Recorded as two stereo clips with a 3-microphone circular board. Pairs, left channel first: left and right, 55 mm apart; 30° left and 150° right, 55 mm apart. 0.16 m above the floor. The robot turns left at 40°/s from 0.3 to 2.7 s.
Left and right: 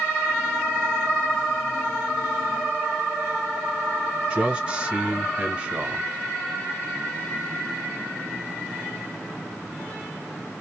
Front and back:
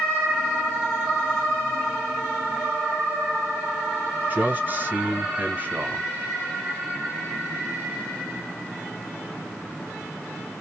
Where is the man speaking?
140° right, 1.6 m.